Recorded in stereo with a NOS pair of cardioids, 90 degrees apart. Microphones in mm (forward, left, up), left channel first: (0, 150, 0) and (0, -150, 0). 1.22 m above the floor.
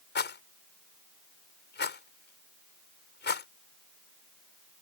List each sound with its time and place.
0.1 s a rattle: 35° left